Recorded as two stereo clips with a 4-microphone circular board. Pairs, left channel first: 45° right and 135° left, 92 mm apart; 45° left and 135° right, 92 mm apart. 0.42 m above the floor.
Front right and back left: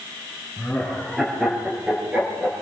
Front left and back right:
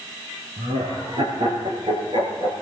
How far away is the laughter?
About 7.5 m.